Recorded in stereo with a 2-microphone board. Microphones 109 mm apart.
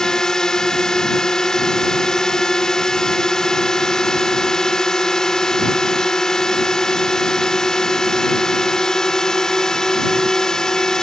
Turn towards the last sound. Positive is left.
turn(degrees=5)  # may be behind; listen again after turning